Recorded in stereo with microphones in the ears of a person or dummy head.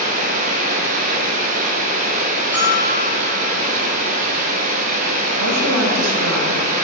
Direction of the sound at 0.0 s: 40° right (ahead or behind).